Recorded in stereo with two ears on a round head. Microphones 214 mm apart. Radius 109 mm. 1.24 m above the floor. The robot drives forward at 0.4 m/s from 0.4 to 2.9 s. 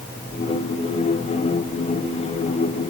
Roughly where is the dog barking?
I don't hear a dog barking.